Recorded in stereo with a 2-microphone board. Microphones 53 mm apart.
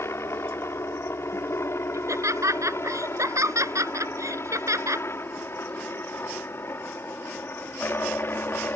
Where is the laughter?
75° right (ahead or behind).